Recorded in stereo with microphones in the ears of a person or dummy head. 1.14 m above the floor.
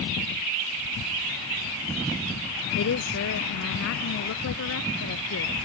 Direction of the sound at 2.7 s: 65° left (ahead or behind).